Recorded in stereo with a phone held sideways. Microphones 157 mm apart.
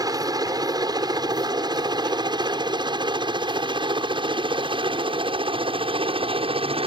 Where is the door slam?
No door slam in this recording.